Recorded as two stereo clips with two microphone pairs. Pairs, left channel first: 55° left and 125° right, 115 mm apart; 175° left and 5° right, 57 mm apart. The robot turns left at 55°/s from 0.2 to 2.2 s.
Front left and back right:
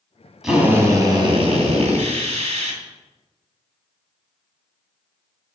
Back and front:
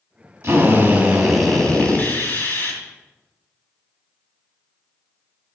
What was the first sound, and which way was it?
A drill, 40° right.